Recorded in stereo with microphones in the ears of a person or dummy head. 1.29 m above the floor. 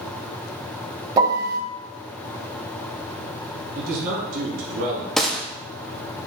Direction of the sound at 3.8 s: 60° right (ahead or behind).